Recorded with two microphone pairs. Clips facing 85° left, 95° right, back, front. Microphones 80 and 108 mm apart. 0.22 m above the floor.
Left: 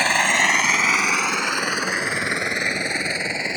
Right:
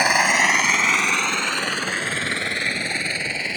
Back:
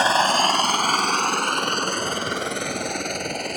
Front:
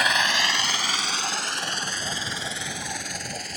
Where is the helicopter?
165° right; by 3.6 s 155° left.